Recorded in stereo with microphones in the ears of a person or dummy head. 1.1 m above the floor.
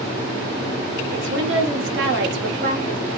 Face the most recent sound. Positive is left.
turn(degrees=-50)  # may be behind; listen again after turning